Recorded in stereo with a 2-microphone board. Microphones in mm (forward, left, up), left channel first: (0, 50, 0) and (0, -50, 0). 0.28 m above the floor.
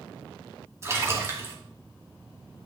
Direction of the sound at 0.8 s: 30° right (ahead or behind).